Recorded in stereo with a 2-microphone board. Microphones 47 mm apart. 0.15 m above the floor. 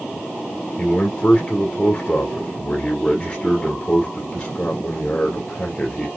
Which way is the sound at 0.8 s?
25° left (ahead or behind).